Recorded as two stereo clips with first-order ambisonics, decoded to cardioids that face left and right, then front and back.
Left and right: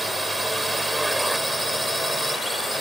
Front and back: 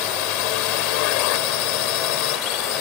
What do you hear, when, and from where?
0.0 s a drone: straight ahead